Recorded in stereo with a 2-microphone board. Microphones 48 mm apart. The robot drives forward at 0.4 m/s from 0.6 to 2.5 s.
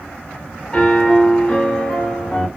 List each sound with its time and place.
0.7 s a piano: 20° left (ahead or behind), 1.4 m; by 2.5 s 15° left (ahead or behind), 1.8 m